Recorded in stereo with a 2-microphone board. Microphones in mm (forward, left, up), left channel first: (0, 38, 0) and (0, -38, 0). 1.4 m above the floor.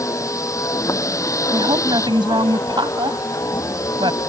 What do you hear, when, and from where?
0.0 s a vehicle: 45° left (ahead or behind)
1.5 s a woman speaking: 90° right